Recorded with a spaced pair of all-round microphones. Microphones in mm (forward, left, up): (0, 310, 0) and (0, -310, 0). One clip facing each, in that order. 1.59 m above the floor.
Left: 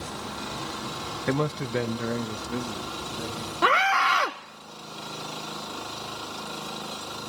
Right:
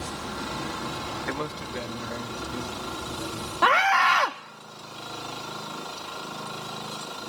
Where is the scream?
25° right (ahead or behind), 0.7 m.